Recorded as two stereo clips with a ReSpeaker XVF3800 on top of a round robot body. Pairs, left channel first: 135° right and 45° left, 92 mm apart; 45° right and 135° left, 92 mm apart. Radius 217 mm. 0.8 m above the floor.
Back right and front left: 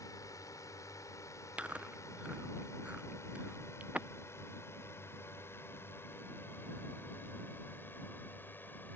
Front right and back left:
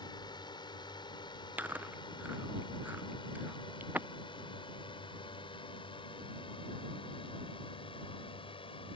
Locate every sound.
0.0 s a drone: 80° right; by 9.0 s 65° right
1.6 s chewing: 100° left